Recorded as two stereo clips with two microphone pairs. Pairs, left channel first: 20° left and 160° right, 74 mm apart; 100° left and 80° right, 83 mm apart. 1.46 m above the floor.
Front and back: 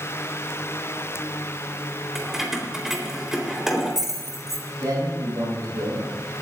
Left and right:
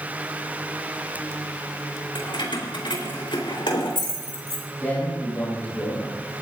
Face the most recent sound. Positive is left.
turn(degrees=170)